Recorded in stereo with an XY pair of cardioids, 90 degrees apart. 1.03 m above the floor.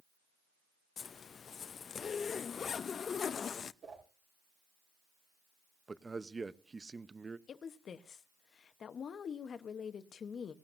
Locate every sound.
1.0 s a zipper: 55° left, 0.5 m
3.8 s a whoosh: 60° right, 6 m
5.9 s a man speaking: 30° right, 0.7 m
7.5 s a woman speaking: 55° left, 0.9 m